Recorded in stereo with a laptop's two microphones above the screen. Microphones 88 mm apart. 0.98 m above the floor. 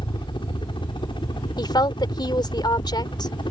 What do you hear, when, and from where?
0.0 s a helicopter: 65° left (ahead or behind)
1.6 s a woman speaking: 55° left (ahead or behind)